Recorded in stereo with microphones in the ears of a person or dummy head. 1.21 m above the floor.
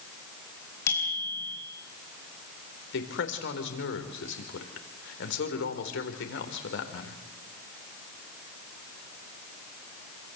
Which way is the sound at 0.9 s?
10° left (ahead or behind).